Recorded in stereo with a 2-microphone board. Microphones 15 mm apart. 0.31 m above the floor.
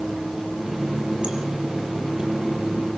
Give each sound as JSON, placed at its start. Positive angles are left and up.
{"t": 0.6, "sound": "a running tap", "side_deg": -65, "distance_m": 6.5}